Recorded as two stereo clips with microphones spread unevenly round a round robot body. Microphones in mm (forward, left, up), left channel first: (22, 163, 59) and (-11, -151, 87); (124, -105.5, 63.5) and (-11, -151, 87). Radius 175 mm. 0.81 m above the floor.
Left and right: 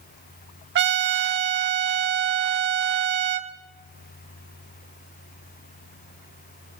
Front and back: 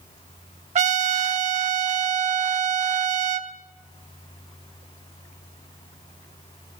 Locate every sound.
0.8 s a trumpet: 145° right, 1.1 m